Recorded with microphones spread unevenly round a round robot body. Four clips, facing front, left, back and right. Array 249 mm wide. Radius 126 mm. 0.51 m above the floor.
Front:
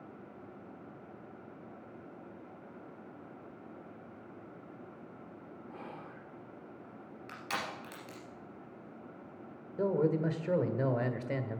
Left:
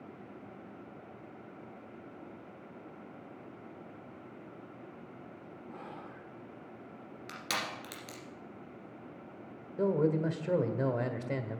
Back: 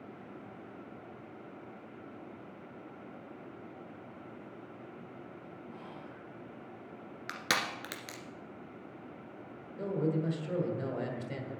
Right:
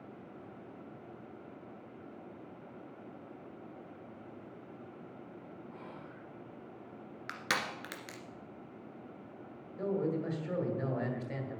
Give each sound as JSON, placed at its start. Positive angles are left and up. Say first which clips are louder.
{"t": 5.7, "sound": "whispering", "louder": "left 2 dB, front 3 dB", "azimuth_deg": 45, "distance_m": 1.5}
{"t": 7.3, "sound": "crushing", "louder": "right 2 dB, back 4 dB", "azimuth_deg": -155, "distance_m": 1.9}
{"t": 9.8, "sound": "a man speaking", "louder": "left 5 dB, front 3 dB", "azimuth_deg": 55, "distance_m": 1.7}